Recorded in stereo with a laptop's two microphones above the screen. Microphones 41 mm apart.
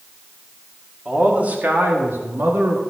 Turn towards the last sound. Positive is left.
turn(degrees=-80)